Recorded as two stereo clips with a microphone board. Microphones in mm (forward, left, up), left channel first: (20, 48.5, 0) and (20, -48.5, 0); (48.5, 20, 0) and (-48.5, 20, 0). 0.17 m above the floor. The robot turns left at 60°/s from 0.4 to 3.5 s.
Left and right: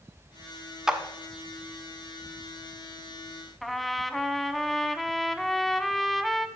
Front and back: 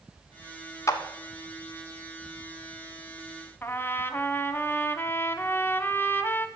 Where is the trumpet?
5° left, 0.7 m.